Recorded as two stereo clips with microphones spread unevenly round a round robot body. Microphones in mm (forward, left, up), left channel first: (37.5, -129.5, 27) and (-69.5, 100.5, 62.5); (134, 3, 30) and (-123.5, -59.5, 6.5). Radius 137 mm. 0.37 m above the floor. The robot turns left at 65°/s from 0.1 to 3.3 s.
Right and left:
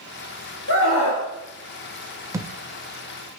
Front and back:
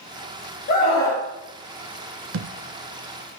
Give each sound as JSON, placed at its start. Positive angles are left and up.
{"t": 0.7, "sound": "a scream", "azimuth_deg": -40, "distance_m": 2.5}
{"t": 2.3, "sound": "a thud", "azimuth_deg": -160, "distance_m": 0.5}